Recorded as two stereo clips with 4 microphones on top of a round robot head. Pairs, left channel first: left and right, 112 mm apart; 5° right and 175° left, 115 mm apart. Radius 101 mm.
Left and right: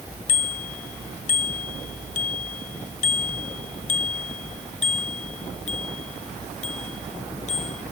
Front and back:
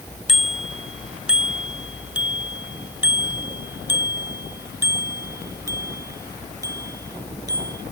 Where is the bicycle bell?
85° left; by 7.8 s 115° left.